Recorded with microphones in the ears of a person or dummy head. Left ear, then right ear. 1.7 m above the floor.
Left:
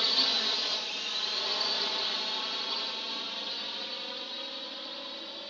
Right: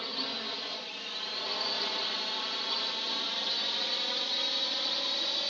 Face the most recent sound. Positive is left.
turn(degrees=-35)  # may be behind; listen again after turning